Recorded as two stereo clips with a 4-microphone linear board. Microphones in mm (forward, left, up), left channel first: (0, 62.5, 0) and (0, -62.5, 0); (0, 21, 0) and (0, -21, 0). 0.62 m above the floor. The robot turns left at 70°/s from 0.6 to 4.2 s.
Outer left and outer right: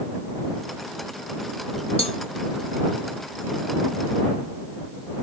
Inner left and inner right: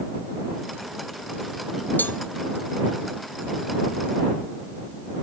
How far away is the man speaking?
No man speaking in this recording.